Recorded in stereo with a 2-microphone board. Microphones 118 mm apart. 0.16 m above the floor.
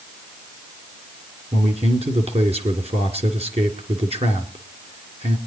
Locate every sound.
1.5 s a man speaking: 55° right (ahead or behind), 2.5 m